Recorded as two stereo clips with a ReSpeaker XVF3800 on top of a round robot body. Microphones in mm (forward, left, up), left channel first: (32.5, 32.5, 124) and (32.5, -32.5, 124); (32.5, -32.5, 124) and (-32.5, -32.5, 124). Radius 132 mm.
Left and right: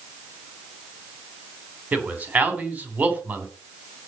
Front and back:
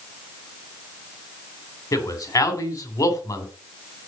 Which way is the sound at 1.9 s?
25° right.